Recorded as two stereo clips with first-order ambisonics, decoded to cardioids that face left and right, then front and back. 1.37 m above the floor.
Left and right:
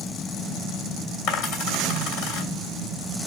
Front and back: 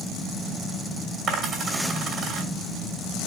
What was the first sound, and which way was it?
A dropped coin, 115° left.